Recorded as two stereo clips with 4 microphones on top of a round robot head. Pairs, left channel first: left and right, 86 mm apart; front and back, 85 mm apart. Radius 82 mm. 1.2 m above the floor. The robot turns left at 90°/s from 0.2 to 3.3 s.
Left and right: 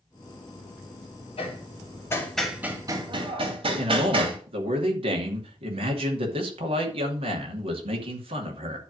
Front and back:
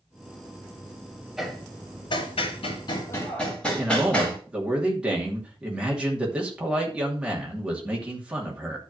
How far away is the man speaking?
About 2.5 m.